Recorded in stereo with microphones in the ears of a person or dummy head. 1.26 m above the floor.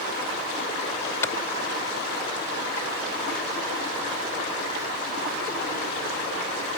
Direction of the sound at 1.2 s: 20° left (ahead or behind).